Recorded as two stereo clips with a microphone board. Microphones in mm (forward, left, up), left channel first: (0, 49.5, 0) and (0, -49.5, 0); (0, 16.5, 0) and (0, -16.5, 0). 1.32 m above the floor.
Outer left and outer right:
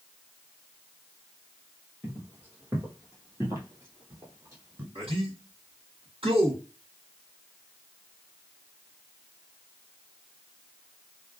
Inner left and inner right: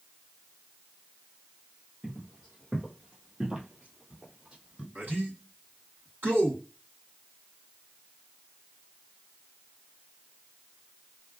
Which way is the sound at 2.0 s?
20° right (ahead or behind).